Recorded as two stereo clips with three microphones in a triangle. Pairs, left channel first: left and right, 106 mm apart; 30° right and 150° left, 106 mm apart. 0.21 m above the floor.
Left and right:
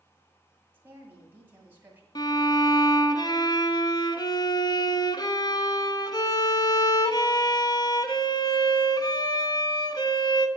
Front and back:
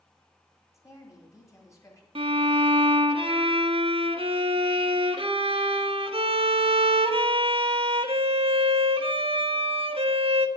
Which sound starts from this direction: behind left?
A violin, at 2.1 s.